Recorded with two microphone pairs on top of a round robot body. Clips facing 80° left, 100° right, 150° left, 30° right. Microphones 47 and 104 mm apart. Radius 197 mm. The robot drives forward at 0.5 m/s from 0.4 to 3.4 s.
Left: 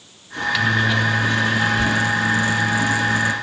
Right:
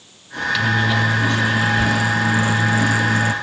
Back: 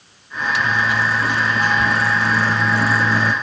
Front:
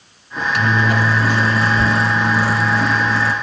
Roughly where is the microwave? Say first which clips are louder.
Even, front 2 dB; ahead.